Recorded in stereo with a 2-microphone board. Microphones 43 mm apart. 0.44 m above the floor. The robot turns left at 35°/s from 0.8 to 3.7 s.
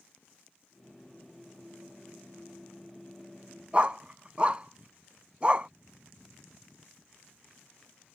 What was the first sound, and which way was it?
A dog barking, 25° right (ahead or behind).